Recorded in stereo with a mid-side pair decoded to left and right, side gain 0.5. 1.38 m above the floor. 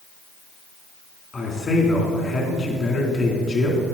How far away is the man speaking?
About 3.5 m.